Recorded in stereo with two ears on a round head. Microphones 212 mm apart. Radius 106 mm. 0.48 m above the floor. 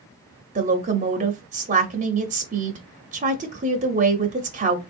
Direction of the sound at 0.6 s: 30° right (ahead or behind).